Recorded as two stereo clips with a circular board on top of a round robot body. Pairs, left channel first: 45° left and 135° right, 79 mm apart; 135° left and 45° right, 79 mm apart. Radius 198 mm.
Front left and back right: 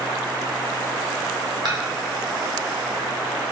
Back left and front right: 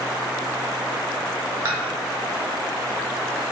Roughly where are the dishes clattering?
Right.